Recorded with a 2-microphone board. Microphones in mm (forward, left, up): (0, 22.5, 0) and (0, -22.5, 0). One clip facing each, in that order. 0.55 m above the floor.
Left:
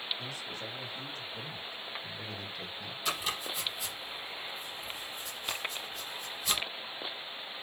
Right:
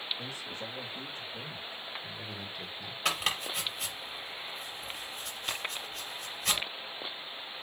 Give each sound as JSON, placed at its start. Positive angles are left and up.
{"t": 0.2, "sound": "a man speaking", "side_deg": -35, "distance_m": 3.5}
{"t": 3.0, "sound": "chopping", "side_deg": -60, "distance_m": 4.5}